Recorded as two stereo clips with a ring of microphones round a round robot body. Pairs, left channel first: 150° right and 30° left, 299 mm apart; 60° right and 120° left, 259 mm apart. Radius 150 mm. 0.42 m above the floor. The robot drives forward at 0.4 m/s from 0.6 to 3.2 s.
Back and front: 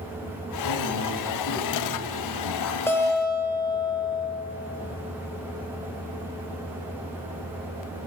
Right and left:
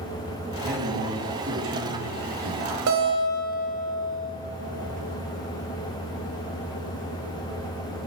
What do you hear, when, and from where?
0.6 s a man speaking: 175° left, 2 m; by 2.8 s straight behind, 3 m
2.9 s a guitar: 130° left, 1.4 m; by 4.3 s 135° left, 1.5 m